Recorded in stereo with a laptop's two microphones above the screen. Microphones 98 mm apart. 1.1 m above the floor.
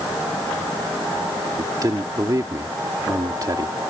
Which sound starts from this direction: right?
A man speaking, at 1.6 s.